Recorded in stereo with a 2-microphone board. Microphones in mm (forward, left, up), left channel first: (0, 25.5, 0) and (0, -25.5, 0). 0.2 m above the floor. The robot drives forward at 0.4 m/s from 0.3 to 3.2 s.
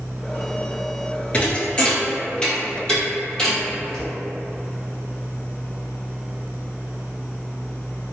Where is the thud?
20° left (ahead or behind), 0.7 m; by 4.1 s 10° left (ahead or behind), 1.4 m.